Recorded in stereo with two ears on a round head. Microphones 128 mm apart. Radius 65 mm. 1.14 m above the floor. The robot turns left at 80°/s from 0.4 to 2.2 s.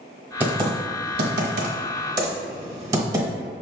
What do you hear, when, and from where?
0.4 s typing on a keyboard: 10° right (ahead or behind), 1.0 m; by 3.3 s 25° right (ahead or behind), 1.0 m